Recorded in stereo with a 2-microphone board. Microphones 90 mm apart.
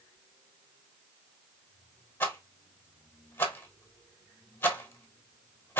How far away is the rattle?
About 1.0 m.